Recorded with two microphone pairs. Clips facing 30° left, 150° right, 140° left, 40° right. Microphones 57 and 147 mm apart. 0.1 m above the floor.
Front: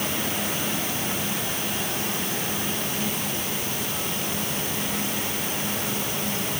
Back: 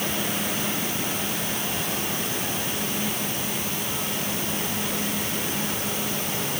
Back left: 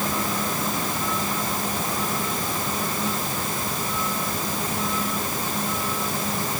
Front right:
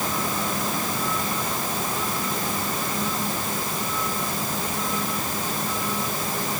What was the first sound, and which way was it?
Only background noise.